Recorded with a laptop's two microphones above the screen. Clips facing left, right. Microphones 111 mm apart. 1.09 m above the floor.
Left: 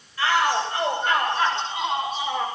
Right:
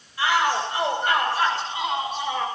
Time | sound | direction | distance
0.2 | a shout | 15° right (ahead or behind) | 6 m